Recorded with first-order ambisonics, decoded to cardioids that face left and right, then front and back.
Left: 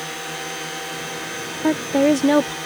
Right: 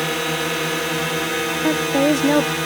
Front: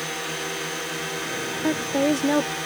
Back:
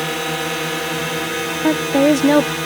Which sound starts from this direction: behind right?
A drone, at 0.0 s.